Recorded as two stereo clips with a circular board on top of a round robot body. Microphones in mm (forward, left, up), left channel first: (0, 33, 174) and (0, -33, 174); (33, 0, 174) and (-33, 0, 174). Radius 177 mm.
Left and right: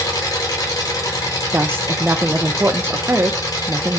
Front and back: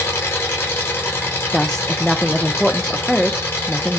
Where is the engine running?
55° left, 1.3 m.